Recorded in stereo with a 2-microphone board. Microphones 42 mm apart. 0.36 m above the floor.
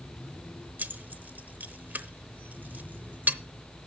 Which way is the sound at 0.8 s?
45° right (ahead or behind).